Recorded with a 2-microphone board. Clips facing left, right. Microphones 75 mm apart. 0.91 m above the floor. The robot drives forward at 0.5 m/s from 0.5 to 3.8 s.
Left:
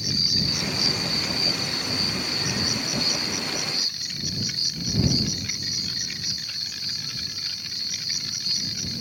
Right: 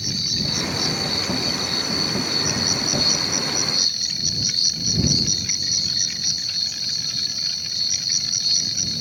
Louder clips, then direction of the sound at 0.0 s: Right 1 dB; 60° right (ahead or behind).